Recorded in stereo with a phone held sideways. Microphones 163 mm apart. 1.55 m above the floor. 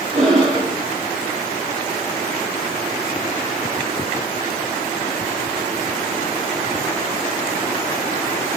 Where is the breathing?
40° right (ahead or behind), 3 m.